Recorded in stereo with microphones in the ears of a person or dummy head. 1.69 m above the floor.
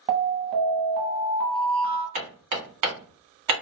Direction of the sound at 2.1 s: 30° right (ahead or behind).